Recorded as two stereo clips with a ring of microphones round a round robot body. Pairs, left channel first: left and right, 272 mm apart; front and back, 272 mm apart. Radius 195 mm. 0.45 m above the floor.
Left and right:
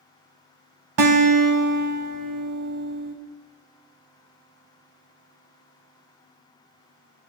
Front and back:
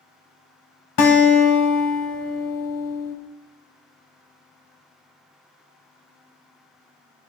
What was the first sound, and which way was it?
A guitar, 45° right.